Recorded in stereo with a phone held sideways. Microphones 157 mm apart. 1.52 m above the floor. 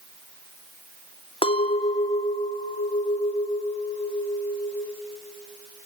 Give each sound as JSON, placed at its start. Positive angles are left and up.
{"t": 1.4, "sound": "a clink", "side_deg": 35, "distance_m": 0.5}